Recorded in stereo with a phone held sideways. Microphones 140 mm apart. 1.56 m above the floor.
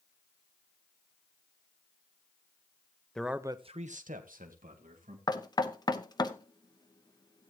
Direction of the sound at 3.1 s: 5° left (ahead or behind).